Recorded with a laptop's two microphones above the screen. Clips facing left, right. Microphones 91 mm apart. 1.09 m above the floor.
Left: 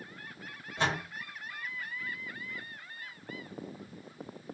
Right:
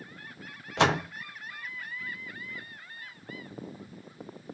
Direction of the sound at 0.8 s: 80° right.